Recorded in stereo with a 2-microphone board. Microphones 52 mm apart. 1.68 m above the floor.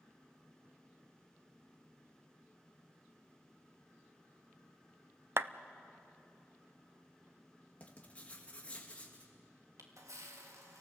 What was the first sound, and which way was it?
A clap, 55° right (ahead or behind).